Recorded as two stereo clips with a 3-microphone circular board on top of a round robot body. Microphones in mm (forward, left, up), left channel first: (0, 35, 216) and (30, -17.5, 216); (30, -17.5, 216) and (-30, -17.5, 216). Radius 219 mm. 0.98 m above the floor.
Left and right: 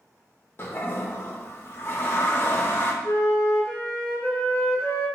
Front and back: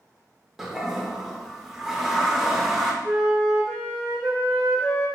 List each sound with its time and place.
0.6 s a toilet flushing: 95° left, 0.7 m
3.0 s a flute: 150° right, 0.7 m